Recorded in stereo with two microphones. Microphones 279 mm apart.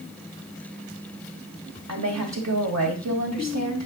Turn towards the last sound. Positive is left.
turn(degrees=-70)  # may be behind; listen again after turning